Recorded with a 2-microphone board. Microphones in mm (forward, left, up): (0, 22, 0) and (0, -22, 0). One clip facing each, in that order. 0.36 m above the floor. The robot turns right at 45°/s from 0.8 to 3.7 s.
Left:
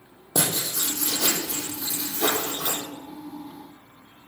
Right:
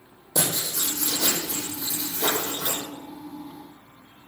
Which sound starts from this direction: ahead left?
Writing, at 0.3 s.